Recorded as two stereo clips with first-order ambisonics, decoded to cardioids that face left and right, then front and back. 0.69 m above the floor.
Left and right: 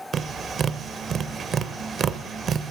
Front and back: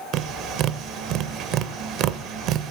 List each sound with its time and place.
0.1 s tapping: 145° right, 0.6 m